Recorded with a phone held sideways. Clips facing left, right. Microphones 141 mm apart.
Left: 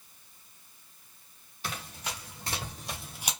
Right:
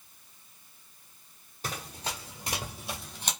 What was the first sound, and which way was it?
Running footsteps, 45° right (ahead or behind).